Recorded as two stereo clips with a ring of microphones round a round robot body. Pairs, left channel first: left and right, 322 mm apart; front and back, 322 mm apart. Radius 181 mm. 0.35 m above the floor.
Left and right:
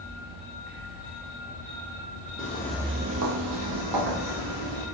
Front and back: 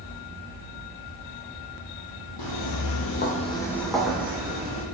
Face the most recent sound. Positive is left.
turn(degrees=-100)